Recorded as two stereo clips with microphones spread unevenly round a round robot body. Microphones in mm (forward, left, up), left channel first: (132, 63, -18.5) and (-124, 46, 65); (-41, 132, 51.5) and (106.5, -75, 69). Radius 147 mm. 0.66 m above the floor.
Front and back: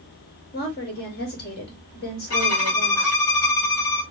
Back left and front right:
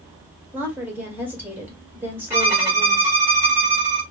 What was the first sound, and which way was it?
A woman speaking, 30° left.